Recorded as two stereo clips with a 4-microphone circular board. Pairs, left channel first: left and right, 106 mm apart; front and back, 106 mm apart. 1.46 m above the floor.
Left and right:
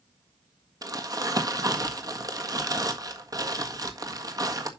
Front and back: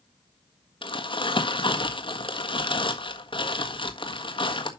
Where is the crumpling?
35° right, 1.5 m.